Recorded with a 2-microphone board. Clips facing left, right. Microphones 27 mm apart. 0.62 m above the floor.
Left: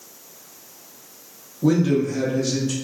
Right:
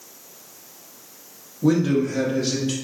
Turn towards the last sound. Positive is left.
turn(degrees=-45)  # may be behind; listen again after turning